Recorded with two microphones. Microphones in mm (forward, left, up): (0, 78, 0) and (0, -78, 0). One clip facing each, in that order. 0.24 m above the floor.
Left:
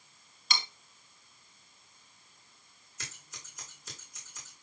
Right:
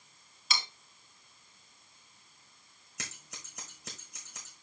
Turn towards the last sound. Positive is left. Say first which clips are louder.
# right 3 dB
turn(degrees=-80)